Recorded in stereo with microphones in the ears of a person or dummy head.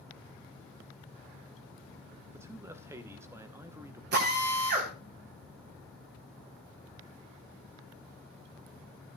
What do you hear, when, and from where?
2.3 s a man speaking: 20° right (ahead or behind), 0.8 m
4.1 s a drill: 60° right (ahead or behind), 3.5 m